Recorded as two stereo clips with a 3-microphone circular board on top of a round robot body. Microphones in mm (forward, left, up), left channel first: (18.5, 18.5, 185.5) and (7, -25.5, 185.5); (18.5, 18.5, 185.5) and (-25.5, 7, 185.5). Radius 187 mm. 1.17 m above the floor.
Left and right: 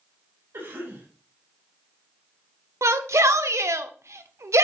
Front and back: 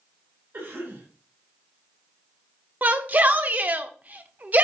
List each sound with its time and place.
0.5 s a cough: 145° right, 5.5 m
2.8 s a shout: 110° right, 0.8 m